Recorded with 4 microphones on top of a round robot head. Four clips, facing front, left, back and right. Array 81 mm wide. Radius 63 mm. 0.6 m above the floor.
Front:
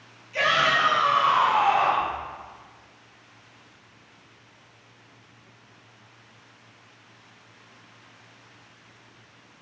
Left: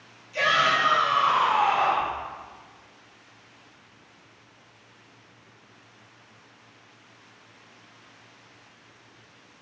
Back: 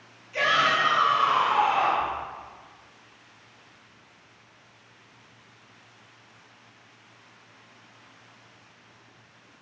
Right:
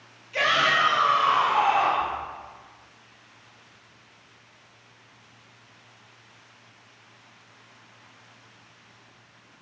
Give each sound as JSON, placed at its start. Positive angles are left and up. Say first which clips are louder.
{"t": 0.3, "sound": "a shout", "louder": "even, front 1 dB", "azimuth_deg": -90, "distance_m": 0.8}